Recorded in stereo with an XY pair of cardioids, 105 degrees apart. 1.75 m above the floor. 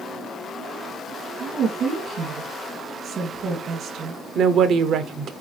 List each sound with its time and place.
1.4 s a woman speaking: 65° right, 3 m
4.3 s a woman speaking: 70° right, 1.0 m